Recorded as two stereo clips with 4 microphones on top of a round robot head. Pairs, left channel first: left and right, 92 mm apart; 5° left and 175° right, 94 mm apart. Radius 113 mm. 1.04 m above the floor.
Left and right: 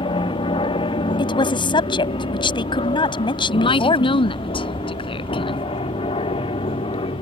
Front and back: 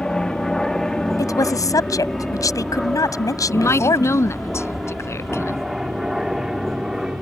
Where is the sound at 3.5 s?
65° left.